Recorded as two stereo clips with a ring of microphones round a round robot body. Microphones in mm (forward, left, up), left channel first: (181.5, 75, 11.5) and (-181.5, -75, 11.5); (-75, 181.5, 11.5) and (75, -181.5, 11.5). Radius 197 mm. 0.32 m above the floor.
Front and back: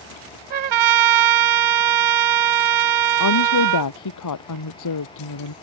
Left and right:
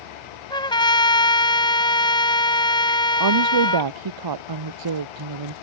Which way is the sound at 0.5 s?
170° right.